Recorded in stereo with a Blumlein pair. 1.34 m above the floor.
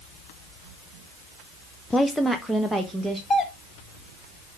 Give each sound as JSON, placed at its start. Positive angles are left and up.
{"t": 1.9, "sound": "a woman speaking", "azimuth_deg": 10, "distance_m": 0.6}
{"t": 3.3, "sound": "a doorbell", "azimuth_deg": 20, "distance_m": 1.3}